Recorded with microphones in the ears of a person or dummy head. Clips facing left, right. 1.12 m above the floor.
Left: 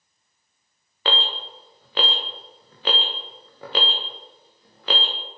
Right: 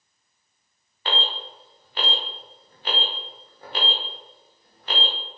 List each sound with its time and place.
1.1 s an alarm: 60° left (ahead or behind), 1.0 m